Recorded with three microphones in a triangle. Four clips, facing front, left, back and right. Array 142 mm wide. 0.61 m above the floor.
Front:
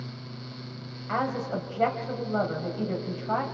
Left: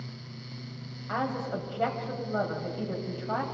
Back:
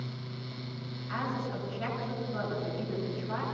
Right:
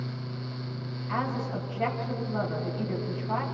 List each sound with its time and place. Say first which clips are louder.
1.1 s a woman speaking: even, front 6 dB; 25° left, 4 m